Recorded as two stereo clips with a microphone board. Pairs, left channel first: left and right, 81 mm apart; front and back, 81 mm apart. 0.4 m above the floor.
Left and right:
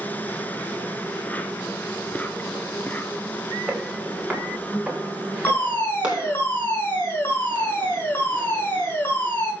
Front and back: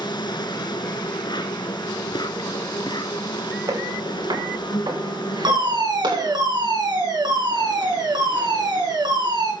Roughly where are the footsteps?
Behind.